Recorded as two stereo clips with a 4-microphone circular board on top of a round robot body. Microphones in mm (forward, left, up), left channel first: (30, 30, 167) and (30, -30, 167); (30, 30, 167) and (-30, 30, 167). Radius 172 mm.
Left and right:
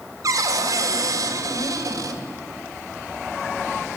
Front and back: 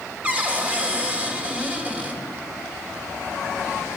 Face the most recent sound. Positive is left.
turn(degrees=-110)